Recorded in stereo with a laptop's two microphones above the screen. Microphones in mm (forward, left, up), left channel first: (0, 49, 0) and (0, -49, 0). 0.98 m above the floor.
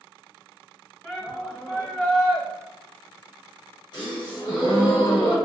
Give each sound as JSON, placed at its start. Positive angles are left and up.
{"t": 1.0, "sound": "a shout", "side_deg": 10, "distance_m": 1.4}
{"t": 3.9, "sound": "a gasp", "side_deg": 45, "distance_m": 1.2}